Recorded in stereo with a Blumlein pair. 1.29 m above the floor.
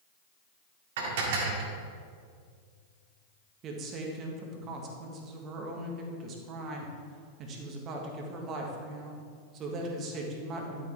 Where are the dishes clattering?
55° right, 1.8 m.